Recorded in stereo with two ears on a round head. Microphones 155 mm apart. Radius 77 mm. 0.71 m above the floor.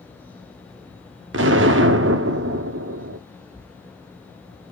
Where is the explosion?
80° right, 0.8 m.